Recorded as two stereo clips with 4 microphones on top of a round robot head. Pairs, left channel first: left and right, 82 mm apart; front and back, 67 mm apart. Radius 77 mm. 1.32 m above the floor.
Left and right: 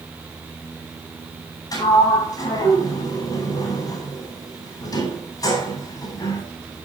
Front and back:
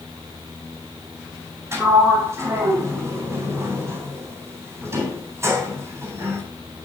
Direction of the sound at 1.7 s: 130° left.